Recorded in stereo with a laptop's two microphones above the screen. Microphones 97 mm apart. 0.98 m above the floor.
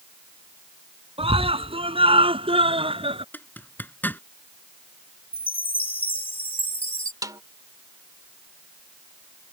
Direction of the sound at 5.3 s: 65° left (ahead or behind).